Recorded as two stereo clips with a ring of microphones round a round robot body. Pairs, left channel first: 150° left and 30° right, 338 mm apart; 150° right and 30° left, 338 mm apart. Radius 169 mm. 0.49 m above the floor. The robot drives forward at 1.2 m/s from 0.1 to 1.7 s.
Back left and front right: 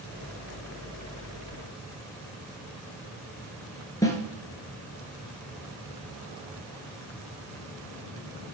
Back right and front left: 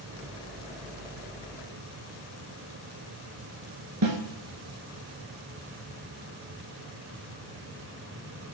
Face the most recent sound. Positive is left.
turn(degrees=70)